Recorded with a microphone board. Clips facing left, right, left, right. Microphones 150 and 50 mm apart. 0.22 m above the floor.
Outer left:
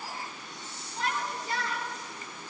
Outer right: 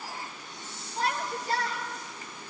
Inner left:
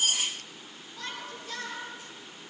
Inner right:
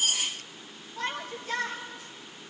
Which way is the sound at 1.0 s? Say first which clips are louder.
Outer right 2 dB, inner right 6 dB; 40° right (ahead or behind).